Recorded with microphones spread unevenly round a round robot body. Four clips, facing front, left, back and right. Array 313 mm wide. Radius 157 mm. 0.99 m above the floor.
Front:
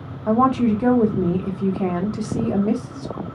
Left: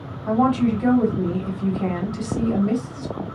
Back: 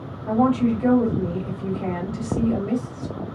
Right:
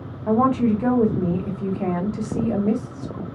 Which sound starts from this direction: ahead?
A woman speaking, at 0.3 s.